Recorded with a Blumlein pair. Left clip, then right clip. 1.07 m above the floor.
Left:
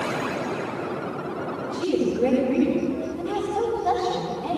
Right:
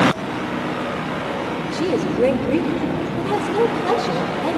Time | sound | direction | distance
1.7 | a woman speaking | 65° right | 4 m